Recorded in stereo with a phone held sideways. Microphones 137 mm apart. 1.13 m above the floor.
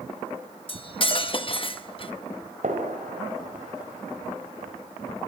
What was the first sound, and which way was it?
Cutlery clinking, 40° left (ahead or behind).